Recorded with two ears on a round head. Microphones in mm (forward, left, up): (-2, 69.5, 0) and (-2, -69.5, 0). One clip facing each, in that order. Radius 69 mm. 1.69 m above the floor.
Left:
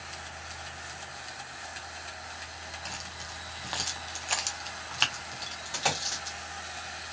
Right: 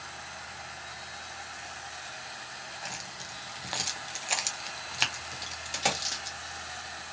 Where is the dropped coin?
20° right (ahead or behind), 1.4 m.